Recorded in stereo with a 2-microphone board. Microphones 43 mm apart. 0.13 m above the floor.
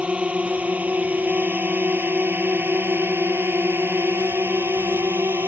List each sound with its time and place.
0.0 s a drone: 30° right (ahead or behind); by 5.5 s 65° right (ahead or behind)